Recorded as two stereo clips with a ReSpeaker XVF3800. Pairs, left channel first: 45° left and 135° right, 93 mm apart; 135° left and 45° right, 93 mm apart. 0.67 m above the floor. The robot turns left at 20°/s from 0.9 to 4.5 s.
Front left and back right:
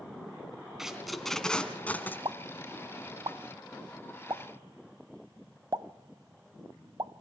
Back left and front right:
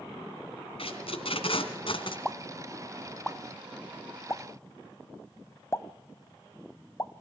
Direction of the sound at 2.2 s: 125° right.